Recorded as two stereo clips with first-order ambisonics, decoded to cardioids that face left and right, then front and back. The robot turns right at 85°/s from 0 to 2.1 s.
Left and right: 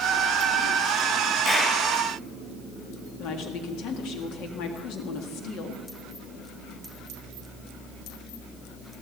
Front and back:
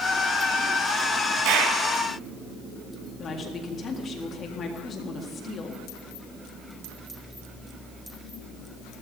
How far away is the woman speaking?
About 1.7 m.